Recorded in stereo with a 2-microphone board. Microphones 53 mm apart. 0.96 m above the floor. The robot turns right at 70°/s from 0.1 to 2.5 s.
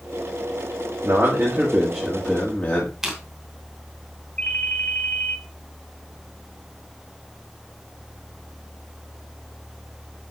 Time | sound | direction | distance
1.0 | a man speaking | 70° right | 1.9 m
3.0 | chewing | 10° right (ahead or behind) | 2 m
4.4 | a ringtone | 35° left (ahead or behind) | 2.5 m